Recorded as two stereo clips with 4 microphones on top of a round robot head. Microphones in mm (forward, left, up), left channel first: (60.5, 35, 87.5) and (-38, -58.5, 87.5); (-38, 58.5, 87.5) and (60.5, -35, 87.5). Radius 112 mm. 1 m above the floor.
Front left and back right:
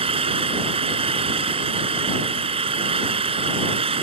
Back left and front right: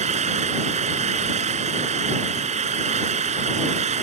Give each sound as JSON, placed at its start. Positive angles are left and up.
{"t": 0.0, "sound": "an engine running", "azimuth_deg": -90}